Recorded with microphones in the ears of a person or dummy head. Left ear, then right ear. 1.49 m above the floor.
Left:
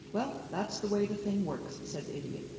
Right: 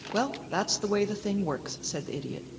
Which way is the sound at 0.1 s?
75° right (ahead or behind).